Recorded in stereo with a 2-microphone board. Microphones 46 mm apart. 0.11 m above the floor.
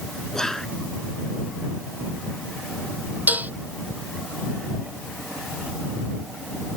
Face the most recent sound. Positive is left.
turn(degrees=-40)  # may be behind; listen again after turning